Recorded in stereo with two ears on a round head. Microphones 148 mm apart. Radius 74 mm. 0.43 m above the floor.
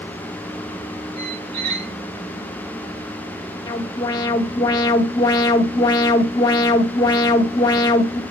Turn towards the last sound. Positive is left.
turn(degrees=25)  # may be behind; listen again after turning